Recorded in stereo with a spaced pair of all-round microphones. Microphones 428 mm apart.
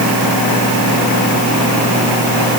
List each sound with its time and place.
Only background noise.